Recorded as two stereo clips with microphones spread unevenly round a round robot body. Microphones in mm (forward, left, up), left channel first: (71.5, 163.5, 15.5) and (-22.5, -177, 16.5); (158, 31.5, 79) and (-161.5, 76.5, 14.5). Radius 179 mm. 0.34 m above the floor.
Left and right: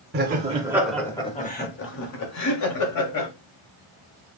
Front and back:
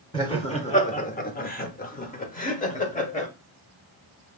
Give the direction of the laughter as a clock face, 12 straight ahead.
3 o'clock.